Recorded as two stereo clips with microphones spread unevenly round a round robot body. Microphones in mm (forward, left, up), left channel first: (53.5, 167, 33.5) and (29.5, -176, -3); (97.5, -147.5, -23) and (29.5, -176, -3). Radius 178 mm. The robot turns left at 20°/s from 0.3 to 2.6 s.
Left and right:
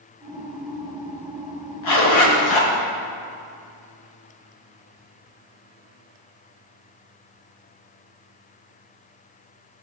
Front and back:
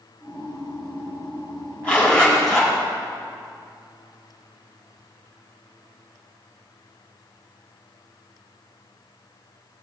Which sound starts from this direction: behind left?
A zipper, at 1.8 s.